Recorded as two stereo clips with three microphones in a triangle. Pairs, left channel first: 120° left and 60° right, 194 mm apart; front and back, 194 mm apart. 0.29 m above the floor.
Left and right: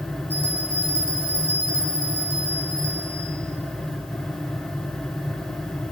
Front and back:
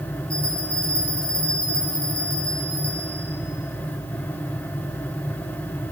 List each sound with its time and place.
0.3 s a bell: 85° right, 5 m